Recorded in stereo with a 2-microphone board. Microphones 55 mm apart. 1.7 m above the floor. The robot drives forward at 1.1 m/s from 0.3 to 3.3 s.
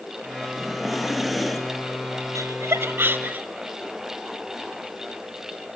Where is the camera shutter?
No camera shutter in this recording.